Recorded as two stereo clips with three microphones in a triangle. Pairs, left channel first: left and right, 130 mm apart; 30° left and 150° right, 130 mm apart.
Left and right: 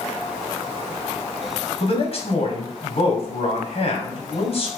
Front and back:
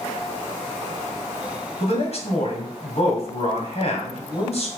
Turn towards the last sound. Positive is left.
turn(degrees=60)